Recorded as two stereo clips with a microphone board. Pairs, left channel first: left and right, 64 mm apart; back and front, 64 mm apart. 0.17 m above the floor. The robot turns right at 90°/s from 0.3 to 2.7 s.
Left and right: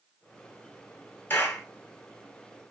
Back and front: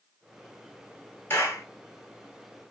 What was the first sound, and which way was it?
A clap, 135° left.